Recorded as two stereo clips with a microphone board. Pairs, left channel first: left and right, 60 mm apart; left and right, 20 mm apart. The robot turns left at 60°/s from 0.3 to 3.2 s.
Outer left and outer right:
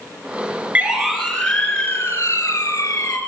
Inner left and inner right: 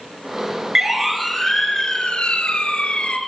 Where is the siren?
30° right (ahead or behind), 6 m; by 3.2 s 85° left, 6 m.